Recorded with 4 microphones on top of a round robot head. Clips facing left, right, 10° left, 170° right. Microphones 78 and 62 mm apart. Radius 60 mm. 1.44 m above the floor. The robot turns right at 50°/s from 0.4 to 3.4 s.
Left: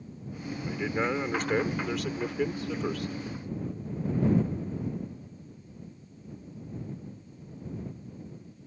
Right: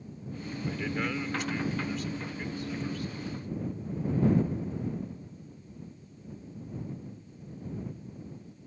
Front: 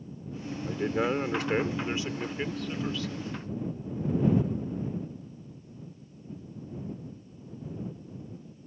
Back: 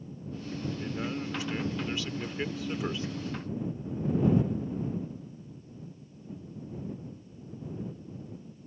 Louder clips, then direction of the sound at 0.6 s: Left 3 dB, front 7 dB; 5° left.